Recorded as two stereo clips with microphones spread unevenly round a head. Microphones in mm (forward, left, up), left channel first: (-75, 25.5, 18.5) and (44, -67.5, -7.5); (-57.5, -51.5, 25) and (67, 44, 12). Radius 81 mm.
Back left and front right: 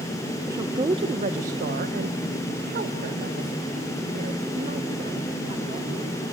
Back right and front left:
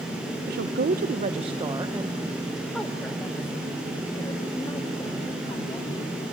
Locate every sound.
0.5 s a woman speaking: 30° left, 0.9 m; by 6.2 s 80° right, 3 m